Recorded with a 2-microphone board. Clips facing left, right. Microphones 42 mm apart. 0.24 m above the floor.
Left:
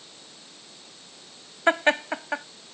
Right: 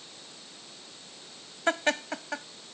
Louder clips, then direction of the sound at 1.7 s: Left 6 dB; 30° left (ahead or behind).